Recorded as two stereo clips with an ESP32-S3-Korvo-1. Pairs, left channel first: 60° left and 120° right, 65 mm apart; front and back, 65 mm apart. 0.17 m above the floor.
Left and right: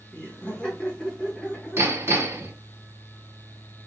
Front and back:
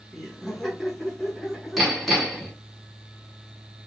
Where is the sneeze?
No sneeze in this recording.